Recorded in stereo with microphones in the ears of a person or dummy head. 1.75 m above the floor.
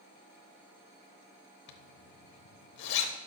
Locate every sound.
1.7 s a zipper: 65° left (ahead or behind), 0.9 m